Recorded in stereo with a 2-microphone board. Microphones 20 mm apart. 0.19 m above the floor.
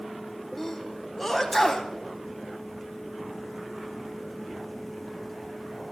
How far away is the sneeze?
About 1.0 m.